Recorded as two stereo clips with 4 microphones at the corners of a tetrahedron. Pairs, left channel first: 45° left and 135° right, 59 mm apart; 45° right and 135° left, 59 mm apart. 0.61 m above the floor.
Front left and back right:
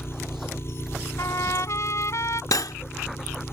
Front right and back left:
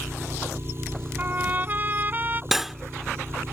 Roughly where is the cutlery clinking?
Ahead left.